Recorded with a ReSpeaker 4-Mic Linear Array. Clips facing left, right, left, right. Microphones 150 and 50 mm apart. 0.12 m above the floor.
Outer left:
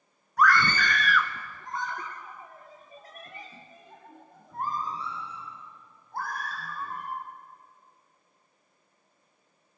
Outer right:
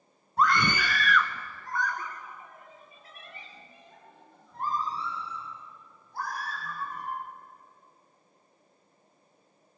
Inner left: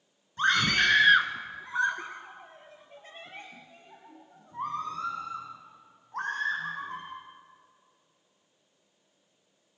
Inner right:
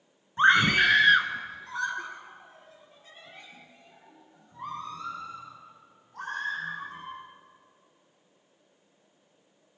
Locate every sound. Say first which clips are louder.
0.4 s a scream: outer left 1 dB, inner right 4 dB; 30° right (ahead or behind), 1.2 m; by 7.1 s 55° left (ahead or behind), 6 m